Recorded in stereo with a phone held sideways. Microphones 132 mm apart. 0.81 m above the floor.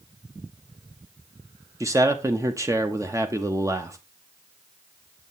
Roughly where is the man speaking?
Right.